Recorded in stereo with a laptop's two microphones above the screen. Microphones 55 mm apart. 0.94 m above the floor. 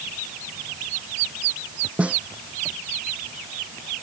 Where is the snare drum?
25° right (ahead or behind).